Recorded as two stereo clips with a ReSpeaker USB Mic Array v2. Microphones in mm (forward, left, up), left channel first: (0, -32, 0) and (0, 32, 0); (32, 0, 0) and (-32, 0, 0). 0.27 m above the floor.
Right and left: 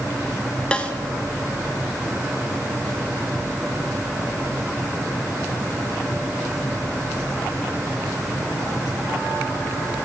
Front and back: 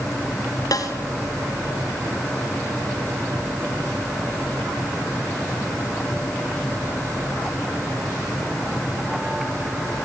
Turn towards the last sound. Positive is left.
turn(degrees=-15)